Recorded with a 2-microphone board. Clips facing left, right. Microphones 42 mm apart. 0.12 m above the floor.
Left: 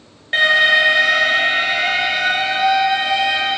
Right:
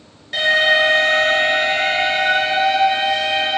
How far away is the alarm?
About 1.2 m.